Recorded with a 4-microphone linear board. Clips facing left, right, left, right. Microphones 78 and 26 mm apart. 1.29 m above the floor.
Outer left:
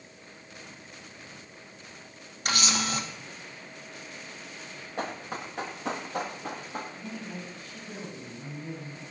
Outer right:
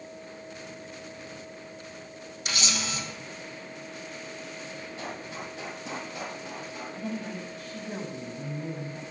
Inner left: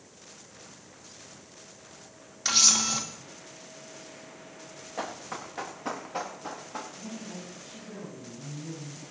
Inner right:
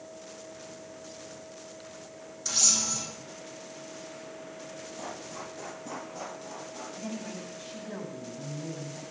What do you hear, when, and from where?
2.5 s a camera shutter: 55° left (ahead or behind), 2.5 m
5.0 s running footsteps: 70° left (ahead or behind), 4 m; by 6.8 s 60° left (ahead or behind), 4.5 m
7.0 s a woman speaking: 65° right (ahead or behind), 8 m